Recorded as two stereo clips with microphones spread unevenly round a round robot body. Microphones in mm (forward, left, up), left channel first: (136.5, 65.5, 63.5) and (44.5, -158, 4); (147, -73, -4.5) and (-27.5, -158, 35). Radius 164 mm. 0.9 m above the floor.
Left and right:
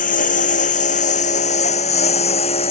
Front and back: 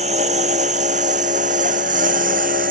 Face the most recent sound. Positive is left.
turn(degrees=140)